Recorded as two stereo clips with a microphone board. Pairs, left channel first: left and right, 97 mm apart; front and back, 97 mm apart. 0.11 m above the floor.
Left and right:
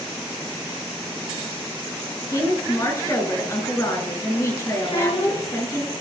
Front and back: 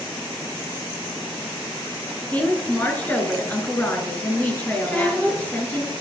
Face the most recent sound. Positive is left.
turn(degrees=75)